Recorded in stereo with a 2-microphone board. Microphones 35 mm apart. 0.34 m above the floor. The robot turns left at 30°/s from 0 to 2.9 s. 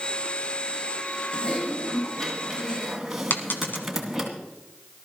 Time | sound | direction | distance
1.3 | typing on a keyboard | 35° left | 2 m
3.3 | a dropped coin | 75° left (ahead or behind) | 1.5 m